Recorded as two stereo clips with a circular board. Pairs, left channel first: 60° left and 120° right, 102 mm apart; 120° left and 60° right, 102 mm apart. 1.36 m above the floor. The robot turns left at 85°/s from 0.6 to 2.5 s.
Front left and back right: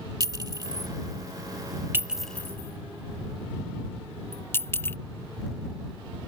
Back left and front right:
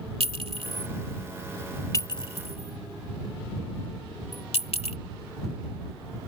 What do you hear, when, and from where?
0.2 s a clink: 70° right; by 5.0 s 125° left